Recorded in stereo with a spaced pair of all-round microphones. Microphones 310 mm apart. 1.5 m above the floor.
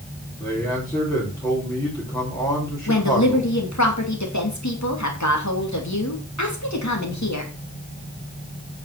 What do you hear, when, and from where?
0.4 s a man speaking: 15° left (ahead or behind), 4.5 m
2.9 s a woman speaking: 75° left (ahead or behind), 2.5 m